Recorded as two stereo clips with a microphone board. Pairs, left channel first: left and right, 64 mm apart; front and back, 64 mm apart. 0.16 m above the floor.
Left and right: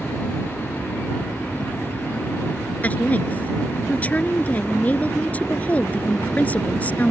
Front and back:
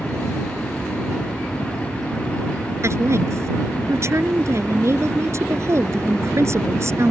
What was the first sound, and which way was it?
A woman speaking, 150° left.